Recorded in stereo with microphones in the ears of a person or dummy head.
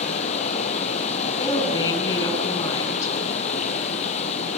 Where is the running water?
35° left (ahead or behind), 3.5 m.